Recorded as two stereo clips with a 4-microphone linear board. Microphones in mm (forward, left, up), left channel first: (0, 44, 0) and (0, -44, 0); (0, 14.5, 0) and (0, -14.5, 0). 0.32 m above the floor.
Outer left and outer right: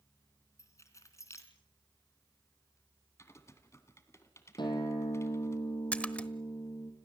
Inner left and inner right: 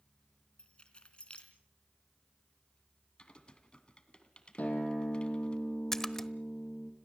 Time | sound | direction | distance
0.6 | keys jangling | 35° left (ahead or behind) | 3 m
3.2 | typing on a keyboard | 35° left (ahead or behind) | 2 m
4.6 | a guitar | 60° left (ahead or behind) | 5 m
5.9 | a splash | 15° left (ahead or behind) | 1.1 m